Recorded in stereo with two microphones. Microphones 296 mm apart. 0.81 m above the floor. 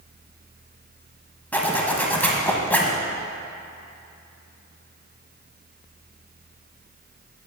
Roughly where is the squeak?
No squeak in this recording.